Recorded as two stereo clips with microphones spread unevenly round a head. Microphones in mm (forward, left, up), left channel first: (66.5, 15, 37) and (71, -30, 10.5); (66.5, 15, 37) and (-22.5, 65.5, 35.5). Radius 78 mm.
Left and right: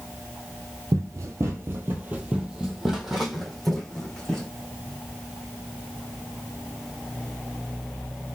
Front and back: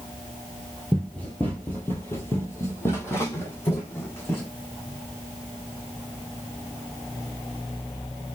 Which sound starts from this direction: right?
Running footsteps, at 0.9 s.